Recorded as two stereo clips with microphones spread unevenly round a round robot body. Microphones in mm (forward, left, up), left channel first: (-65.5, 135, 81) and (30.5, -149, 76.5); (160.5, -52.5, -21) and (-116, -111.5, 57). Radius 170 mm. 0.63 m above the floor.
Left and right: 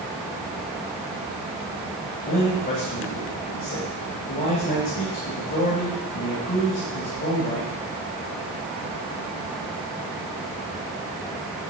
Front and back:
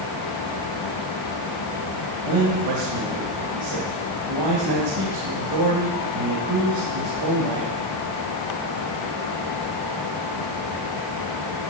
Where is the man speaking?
170° left, 3.5 m.